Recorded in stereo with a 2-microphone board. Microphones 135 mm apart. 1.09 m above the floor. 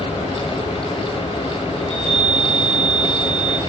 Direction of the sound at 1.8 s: 55° left (ahead or behind).